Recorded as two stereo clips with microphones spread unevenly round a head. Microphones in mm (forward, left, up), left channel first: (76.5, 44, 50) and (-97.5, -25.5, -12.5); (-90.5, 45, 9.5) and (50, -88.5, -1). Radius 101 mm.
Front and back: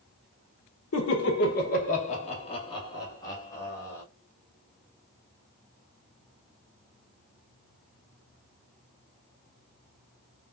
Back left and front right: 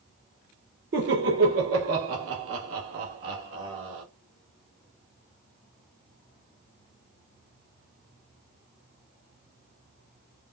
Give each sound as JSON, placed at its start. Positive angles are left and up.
{"t": 0.9, "sound": "laughter", "azimuth_deg": -5, "distance_m": 0.7}